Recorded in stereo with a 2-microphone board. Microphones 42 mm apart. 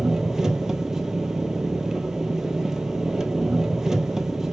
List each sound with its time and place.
0.0 s an engine running: 10° right (ahead or behind), 1.1 m